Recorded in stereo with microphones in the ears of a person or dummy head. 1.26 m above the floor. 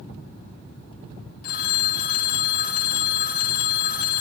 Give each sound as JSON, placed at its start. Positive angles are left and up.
{"t": 1.4, "sound": "a phone ringing", "side_deg": 45, "distance_m": 1.6}